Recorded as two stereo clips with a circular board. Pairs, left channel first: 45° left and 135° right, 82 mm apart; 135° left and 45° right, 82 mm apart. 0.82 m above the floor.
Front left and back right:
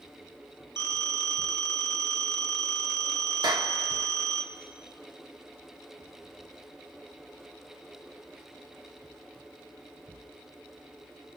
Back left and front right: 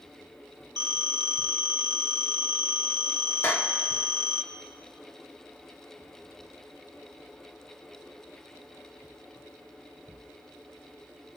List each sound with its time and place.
0.8 s a phone ringing: 15° right, 1.4 m
3.4 s a clap: 165° right, 1.4 m